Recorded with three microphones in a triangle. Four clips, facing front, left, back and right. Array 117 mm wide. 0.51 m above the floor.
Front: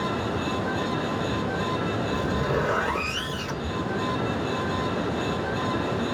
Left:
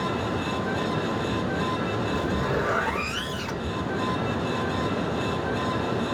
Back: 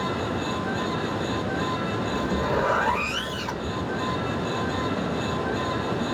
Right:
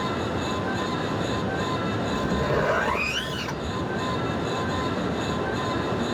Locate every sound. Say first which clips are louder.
2.1 s a zipper: right 3 dB, back 2 dB; 120° right, 1.5 m